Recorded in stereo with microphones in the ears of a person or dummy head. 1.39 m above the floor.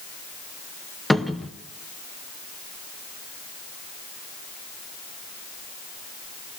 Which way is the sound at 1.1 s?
5° right (ahead or behind).